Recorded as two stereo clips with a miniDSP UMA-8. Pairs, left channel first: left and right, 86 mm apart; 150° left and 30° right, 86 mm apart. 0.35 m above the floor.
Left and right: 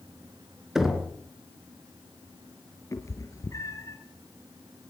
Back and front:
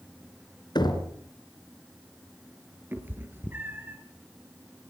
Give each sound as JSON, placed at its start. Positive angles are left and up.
{"t": 0.8, "sound": "knocking", "azimuth_deg": -175, "distance_m": 3.0}
{"t": 2.9, "sound": "a cat meowing", "azimuth_deg": 35, "distance_m": 3.0}